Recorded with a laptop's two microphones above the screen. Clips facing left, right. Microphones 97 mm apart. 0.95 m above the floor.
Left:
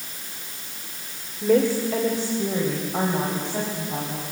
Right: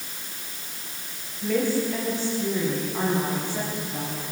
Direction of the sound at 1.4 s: 65° left (ahead or behind).